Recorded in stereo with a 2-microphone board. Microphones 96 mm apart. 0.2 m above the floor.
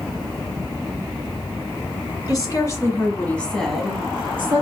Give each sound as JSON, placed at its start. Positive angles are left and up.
{"t": 2.3, "sound": "a woman speaking", "side_deg": 40, "distance_m": 1.7}